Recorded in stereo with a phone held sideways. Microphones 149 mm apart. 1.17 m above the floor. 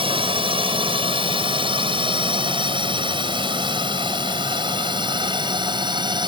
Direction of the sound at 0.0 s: 35° right (ahead or behind).